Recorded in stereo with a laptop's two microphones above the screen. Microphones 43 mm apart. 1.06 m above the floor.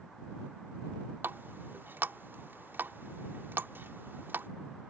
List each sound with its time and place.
1.2 s a running tap: 55° right (ahead or behind)